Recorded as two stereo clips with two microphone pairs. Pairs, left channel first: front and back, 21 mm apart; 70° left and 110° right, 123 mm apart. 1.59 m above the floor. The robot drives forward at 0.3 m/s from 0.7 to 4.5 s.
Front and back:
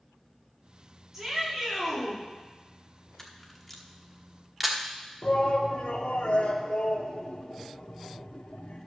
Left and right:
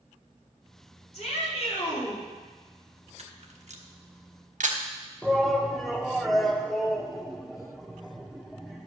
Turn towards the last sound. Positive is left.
turn(degrees=-20)